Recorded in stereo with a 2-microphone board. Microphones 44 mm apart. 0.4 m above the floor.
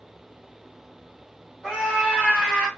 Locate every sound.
1.6 s a scream: 15° left (ahead or behind), 2.5 m; by 2.7 s 10° right (ahead or behind), 3 m